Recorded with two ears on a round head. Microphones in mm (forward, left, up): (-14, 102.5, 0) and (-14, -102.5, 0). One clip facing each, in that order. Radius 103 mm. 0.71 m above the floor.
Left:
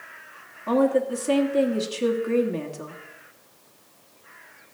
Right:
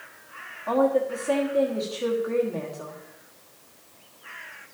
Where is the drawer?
I don't hear a drawer.